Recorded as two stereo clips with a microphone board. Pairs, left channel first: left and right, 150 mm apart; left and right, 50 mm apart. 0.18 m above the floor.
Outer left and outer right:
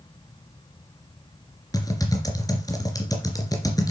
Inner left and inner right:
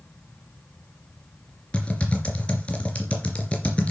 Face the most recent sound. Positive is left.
turn(degrees=25)  # may be behind; listen again after turning